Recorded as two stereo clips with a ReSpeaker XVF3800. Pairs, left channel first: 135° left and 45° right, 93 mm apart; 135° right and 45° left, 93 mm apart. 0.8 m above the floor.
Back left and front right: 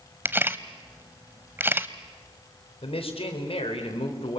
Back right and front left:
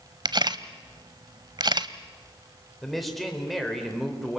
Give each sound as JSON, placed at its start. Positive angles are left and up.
{"t": 0.2, "sound": "a camera shutter", "azimuth_deg": 20, "distance_m": 0.8}
{"t": 2.8, "sound": "a man speaking", "azimuth_deg": 135, "distance_m": 3.5}